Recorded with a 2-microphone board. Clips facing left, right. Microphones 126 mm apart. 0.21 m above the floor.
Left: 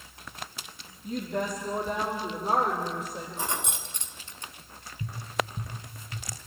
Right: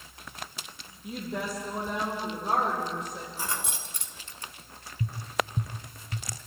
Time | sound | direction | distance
1.0 | a woman speaking | 10° right (ahead or behind) | 5 m
3.4 | keys jangling | 25° left (ahead or behind) | 1.6 m
5.0 | tapping | 40° right (ahead or behind) | 1.2 m